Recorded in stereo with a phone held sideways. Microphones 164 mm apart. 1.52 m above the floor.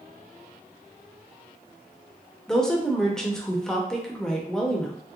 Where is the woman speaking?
5° left (ahead or behind), 0.6 m.